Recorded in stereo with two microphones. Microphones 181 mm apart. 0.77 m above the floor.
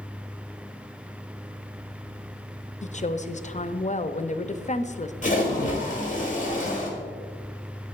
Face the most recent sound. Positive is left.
turn(degrees=40)  # may be behind; listen again after turning